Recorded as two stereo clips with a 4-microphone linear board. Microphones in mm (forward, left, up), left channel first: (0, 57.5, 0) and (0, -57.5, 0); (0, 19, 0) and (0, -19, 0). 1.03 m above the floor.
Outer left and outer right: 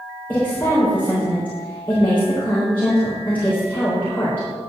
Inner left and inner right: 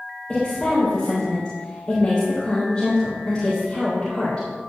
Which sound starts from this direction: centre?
A woman speaking, at 0.3 s.